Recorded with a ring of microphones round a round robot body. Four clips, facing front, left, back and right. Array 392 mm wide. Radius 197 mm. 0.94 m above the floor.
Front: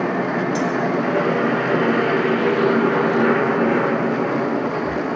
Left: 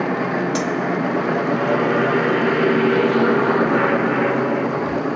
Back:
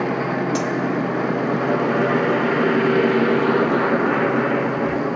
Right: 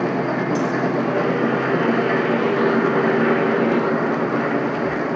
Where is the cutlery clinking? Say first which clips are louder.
Even, front 2 dB; 120° left, 3 m.